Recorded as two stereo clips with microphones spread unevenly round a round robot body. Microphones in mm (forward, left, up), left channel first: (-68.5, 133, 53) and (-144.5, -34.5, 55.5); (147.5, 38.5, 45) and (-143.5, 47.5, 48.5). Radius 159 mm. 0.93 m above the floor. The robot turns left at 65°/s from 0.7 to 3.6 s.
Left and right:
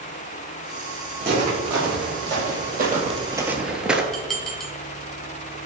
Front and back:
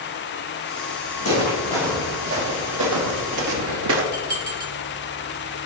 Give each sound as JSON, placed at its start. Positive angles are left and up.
{"t": 1.2, "sound": "footsteps", "azimuth_deg": -45, "distance_m": 4.0}
{"t": 4.1, "sound": "dishes clattering", "azimuth_deg": 155, "distance_m": 2.5}